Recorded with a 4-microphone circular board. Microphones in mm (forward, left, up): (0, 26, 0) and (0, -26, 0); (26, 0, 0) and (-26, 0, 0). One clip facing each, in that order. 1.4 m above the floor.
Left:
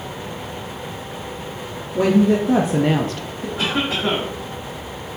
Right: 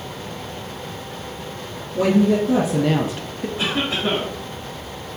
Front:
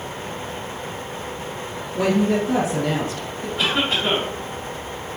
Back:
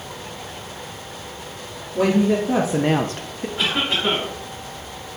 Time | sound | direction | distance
1.9 | a woman speaking | 95° left | 1.3 m
3.6 | a cough | 85° left | 2.5 m